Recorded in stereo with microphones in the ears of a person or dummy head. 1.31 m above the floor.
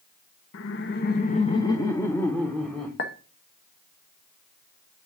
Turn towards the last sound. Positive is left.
turn(degrees=55)  # may be behind; listen again after turning